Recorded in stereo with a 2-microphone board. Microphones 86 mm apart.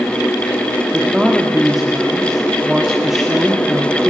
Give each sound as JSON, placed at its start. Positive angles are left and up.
{"t": 0.9, "sound": "a woman speaking", "side_deg": -5, "distance_m": 1.9}